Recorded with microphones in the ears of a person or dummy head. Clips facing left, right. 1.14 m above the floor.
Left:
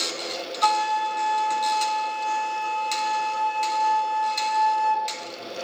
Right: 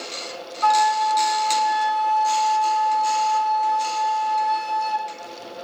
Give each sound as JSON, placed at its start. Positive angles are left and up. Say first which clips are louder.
{"t": 0.6, "sound": "a flute", "louder": "right 5 dB", "side_deg": 40, "distance_m": 0.8}